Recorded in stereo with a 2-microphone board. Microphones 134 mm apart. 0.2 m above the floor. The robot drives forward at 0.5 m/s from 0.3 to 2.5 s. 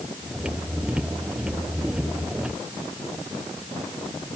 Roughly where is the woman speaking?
I don't hear a woman speaking.